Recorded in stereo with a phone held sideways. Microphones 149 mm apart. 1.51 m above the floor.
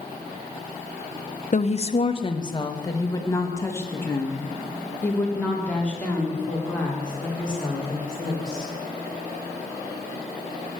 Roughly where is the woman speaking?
Left.